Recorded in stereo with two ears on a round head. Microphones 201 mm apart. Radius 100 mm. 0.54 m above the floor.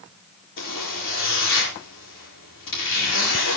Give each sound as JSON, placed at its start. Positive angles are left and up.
{"t": 0.6, "sound": "a zipper", "side_deg": 60, "distance_m": 8.0}